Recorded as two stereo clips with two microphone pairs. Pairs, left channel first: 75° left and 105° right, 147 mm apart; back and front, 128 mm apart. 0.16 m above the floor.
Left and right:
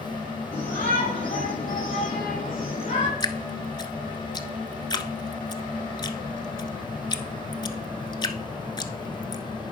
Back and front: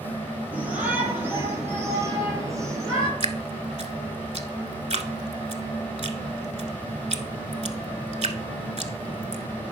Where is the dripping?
20° left, 0.7 m.